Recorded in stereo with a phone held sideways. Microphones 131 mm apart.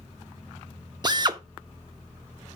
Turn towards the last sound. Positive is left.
turn(degrees=-35)  # may be behind; listen again after turning